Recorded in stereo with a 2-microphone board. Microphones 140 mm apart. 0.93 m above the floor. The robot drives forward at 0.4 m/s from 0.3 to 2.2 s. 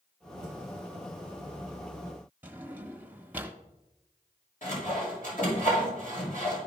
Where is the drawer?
15° right (ahead or behind), 1.0 m.